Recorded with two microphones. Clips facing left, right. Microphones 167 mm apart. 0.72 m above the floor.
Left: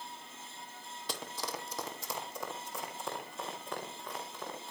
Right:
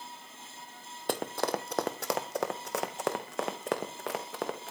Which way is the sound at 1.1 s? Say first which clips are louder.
Right 10 dB; 55° right (ahead or behind).